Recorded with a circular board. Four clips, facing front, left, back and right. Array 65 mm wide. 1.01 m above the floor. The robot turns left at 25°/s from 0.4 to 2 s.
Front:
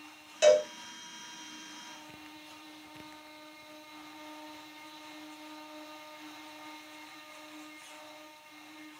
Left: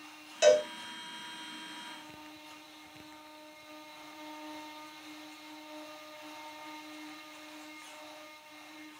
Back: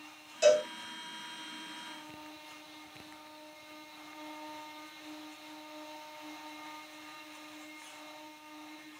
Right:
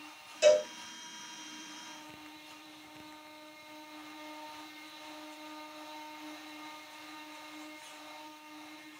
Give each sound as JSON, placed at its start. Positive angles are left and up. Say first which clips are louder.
{"t": 0.4, "sound": "a cowbell", "louder": "left 1 dB, front 2 dB", "azimuth_deg": 50, "distance_m": 1.2}